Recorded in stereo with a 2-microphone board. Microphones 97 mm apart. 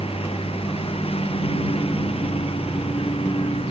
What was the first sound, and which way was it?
A lawn mower, 85° left.